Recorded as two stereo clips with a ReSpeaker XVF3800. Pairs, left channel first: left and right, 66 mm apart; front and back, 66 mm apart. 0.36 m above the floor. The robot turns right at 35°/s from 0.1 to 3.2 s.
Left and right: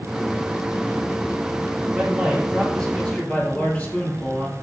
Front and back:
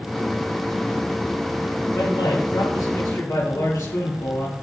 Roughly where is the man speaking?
Ahead right.